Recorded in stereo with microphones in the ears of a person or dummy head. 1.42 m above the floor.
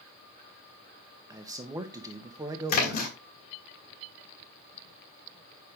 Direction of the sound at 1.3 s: 15° right (ahead or behind).